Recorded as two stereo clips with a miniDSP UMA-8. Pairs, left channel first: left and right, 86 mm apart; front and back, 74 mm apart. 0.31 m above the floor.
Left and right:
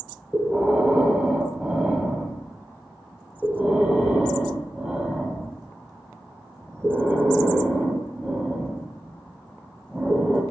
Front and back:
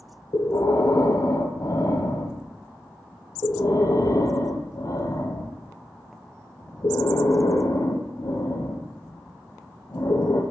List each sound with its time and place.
0.3 s breathing: 15° right, 1.2 m